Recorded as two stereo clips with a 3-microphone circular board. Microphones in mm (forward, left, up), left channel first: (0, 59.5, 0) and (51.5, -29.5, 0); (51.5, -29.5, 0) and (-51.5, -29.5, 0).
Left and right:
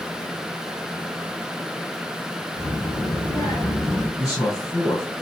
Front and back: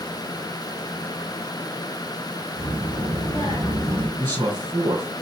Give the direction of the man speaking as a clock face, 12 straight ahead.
7 o'clock.